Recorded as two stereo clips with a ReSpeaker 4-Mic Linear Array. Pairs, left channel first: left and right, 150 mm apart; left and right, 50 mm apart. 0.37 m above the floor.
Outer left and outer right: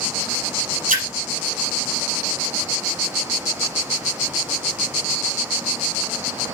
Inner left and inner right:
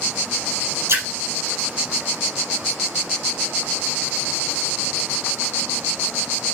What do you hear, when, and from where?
0.9 s a splash: 60° right (ahead or behind), 5 m